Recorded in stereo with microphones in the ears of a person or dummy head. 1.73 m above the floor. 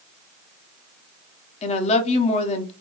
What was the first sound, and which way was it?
A woman speaking, 35° left (ahead or behind).